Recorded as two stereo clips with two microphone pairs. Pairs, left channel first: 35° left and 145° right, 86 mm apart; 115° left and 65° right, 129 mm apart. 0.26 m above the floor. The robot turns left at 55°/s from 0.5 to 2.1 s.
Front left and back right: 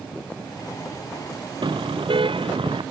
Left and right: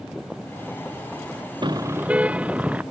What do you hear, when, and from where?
1.6 s a car horn: 115° right; by 2.8 s 140° right